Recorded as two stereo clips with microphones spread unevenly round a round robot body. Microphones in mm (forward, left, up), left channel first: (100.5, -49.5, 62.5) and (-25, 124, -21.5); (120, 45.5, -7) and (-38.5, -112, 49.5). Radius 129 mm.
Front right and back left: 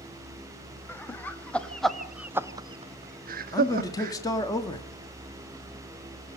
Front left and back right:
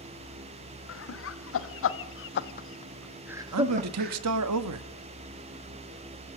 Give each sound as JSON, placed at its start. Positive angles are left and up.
{"t": 0.9, "sound": "laughter", "azimuth_deg": 30, "distance_m": 2.5}
{"t": 3.5, "sound": "a man speaking", "azimuth_deg": -140, "distance_m": 1.6}